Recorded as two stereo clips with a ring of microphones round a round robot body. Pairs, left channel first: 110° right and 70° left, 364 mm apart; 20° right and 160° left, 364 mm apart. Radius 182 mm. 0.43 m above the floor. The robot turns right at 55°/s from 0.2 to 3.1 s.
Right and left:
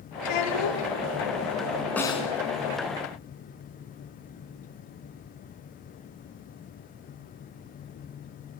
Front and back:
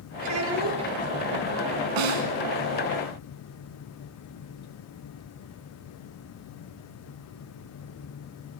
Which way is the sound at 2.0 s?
160° left.